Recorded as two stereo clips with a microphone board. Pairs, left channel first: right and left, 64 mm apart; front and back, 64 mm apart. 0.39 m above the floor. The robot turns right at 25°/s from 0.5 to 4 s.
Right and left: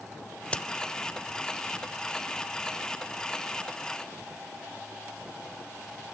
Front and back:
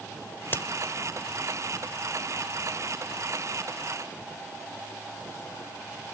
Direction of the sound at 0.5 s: 35° right.